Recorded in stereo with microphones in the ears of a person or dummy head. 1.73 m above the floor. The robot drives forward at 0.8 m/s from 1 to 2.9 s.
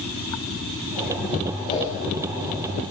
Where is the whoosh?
35° left (ahead or behind), 8.5 m.